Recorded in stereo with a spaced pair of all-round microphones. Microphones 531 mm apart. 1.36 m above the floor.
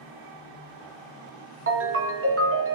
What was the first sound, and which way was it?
A ringtone, 25° right (ahead or behind).